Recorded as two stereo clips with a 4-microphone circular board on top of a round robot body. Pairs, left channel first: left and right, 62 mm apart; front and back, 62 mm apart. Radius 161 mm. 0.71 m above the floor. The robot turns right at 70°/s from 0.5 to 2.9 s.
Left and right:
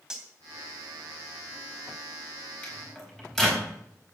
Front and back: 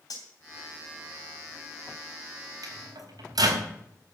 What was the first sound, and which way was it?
Cutlery clinking, 10° right.